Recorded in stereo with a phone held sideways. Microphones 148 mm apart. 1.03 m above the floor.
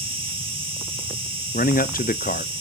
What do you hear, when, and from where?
0.0 s an insect: 40° right (ahead or behind), 3 m
1.5 s a man speaking: 75° left (ahead or behind), 0.5 m